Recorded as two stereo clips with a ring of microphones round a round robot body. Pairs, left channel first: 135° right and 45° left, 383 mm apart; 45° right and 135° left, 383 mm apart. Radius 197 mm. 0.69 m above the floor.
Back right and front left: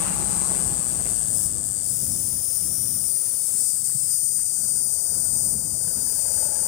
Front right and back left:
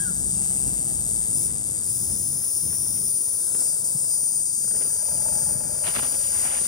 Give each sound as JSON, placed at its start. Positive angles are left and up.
{"t": 0.0, "sound": "an insect", "azimuth_deg": -125}